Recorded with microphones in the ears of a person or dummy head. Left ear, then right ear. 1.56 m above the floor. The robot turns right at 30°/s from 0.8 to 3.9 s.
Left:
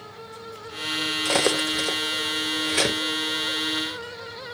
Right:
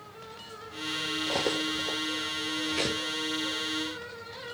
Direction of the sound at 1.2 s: 50° left (ahead or behind).